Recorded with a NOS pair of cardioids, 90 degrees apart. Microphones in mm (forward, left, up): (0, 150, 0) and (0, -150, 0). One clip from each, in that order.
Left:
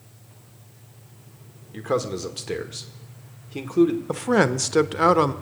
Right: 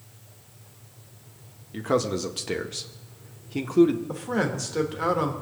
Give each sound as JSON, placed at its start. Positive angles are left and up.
{"t": 1.7, "sound": "a man speaking", "azimuth_deg": 0, "distance_m": 1.6}
{"t": 4.1, "sound": "a man speaking", "azimuth_deg": 55, "distance_m": 1.1}